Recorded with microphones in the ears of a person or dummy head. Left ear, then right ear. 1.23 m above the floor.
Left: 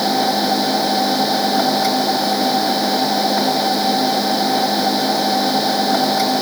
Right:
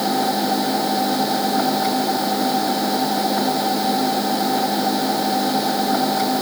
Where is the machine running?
20° left (ahead or behind).